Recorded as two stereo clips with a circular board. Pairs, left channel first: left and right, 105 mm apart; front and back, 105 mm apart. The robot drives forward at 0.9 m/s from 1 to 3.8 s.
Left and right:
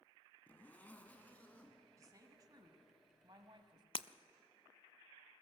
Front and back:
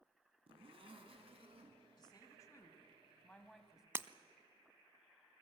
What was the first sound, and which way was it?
A zipper, 165° left.